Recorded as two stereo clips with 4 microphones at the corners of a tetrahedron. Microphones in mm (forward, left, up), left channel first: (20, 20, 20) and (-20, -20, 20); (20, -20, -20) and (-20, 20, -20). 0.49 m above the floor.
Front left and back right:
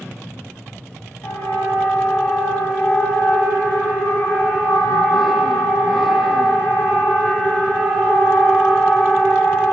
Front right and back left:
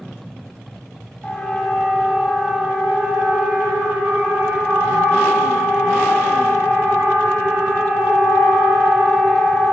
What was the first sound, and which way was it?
A siren, 20° left.